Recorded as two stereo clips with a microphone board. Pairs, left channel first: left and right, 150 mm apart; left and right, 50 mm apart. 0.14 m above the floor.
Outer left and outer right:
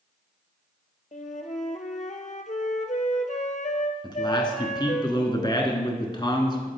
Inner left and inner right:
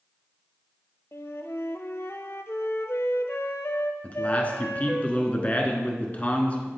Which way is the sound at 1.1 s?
60° left (ahead or behind).